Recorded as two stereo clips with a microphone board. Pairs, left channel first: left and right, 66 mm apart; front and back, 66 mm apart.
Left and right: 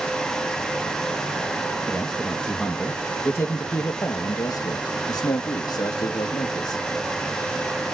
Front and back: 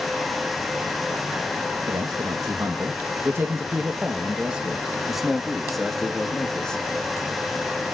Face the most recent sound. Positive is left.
turn(degrees=80)